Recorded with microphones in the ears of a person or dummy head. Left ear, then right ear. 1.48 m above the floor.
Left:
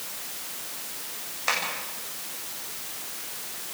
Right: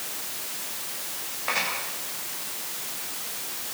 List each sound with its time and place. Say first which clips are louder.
1.5 s tapping: left 1 dB; 90° left, 9.5 m